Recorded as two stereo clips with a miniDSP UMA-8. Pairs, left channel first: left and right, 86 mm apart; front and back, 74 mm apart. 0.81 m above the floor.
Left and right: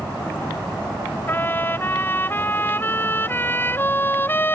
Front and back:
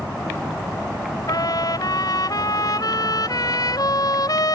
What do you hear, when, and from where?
1.3 s a trumpet: 25° left